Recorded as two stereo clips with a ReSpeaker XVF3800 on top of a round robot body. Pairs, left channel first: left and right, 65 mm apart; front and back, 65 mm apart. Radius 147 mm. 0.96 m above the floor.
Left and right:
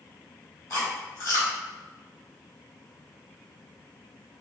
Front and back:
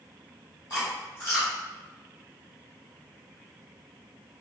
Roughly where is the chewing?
Ahead left.